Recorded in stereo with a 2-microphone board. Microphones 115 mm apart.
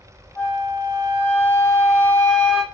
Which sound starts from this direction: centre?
A flute, at 0.3 s.